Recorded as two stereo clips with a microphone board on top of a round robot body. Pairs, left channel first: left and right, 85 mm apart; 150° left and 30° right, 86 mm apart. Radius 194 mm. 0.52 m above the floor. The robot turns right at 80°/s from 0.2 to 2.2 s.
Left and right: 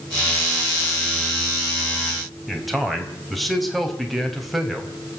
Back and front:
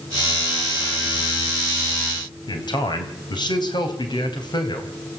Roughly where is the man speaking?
Behind.